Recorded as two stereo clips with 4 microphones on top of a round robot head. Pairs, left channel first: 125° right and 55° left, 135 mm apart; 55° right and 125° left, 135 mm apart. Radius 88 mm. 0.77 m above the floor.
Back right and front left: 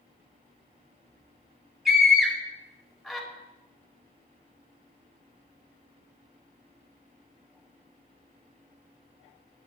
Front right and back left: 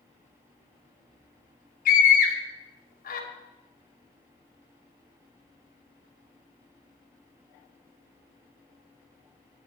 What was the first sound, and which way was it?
A scream, 35° right.